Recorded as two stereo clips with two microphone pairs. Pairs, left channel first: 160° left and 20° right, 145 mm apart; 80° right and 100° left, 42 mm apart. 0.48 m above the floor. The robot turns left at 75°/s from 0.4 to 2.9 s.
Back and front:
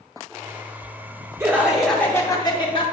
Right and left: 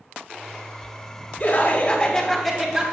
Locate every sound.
1.4 s laughter: 80° right, 0.9 m; by 2.9 s 165° left, 0.9 m